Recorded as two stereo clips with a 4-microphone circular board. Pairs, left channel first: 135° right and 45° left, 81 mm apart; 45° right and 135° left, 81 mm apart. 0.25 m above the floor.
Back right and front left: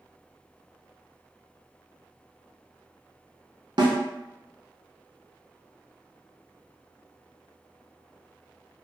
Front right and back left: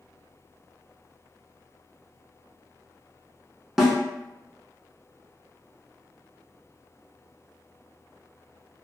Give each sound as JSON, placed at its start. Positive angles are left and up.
{"t": 3.8, "sound": "a snare drum", "azimuth_deg": 50, "distance_m": 0.7}